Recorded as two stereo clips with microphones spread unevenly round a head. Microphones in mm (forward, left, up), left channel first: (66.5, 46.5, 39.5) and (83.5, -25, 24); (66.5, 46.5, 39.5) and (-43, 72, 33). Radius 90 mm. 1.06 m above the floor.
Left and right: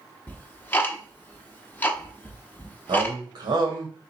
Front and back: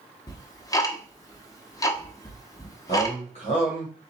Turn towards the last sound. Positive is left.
turn(degrees=-60)